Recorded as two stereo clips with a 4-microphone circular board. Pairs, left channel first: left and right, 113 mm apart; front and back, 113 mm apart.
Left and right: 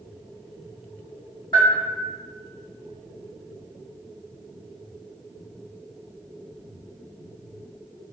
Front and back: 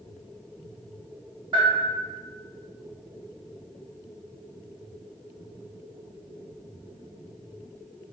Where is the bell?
135° left, 1.3 m.